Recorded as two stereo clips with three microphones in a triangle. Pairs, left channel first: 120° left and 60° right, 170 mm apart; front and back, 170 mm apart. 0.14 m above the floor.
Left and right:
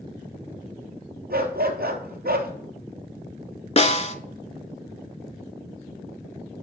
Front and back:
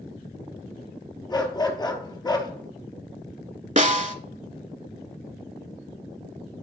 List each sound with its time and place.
1.3 s a dog barking: 65° right, 1.0 m
3.8 s a snare drum: 155° left, 0.5 m